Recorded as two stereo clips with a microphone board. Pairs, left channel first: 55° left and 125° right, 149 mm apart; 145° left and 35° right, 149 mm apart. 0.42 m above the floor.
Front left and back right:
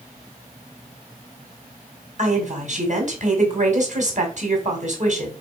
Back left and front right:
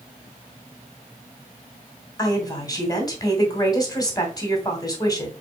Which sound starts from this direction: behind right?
A woman speaking, at 2.2 s.